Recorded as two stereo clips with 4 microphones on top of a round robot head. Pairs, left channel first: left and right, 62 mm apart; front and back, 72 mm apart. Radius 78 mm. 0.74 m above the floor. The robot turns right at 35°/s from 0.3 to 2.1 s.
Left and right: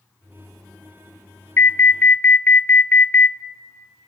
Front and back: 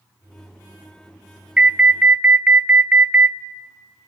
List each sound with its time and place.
1.6 s an alarm: 110° left, 0.6 m; by 3.4 s 130° left, 0.6 m